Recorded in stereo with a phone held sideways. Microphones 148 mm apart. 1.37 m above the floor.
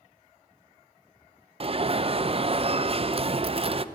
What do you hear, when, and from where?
1.6 s an alarm: 40° right (ahead or behind), 0.6 m